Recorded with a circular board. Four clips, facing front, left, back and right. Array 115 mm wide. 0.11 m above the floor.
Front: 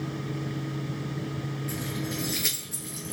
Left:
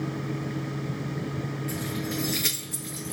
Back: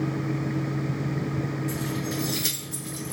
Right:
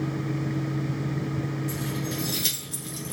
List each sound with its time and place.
1.7 s keys jangling: 45° left, 1.4 m; by 3.1 s 90° left, 1.2 m